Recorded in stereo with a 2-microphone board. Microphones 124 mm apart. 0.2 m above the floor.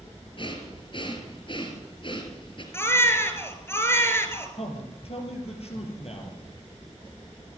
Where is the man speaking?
55° left (ahead or behind), 4 m.